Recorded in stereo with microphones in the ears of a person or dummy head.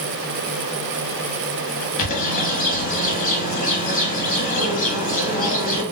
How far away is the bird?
About 0.9 m.